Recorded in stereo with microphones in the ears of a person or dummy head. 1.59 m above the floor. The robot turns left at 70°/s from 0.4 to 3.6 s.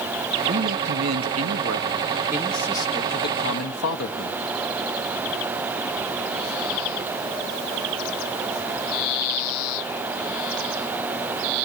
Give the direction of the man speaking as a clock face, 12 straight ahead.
1 o'clock.